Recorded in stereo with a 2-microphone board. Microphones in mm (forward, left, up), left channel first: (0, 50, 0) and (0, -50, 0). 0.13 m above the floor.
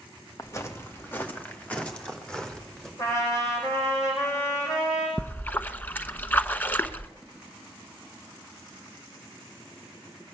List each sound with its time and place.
0.4 s footsteps: 30° left (ahead or behind), 1.9 m; by 2.9 s 5° left (ahead or behind), 3.5 m
3.0 s a trumpet: 30° left (ahead or behind), 8 m
5.2 s a splash: 20° left (ahead or behind), 0.8 m